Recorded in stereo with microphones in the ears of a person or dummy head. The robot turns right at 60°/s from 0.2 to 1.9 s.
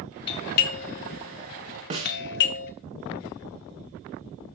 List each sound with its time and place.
0.3 s a doorbell: 25° left (ahead or behind), 0.6 m; by 2.7 s 55° left (ahead or behind), 0.6 m
1.9 s a snare drum: 35° right (ahead or behind), 1.3 m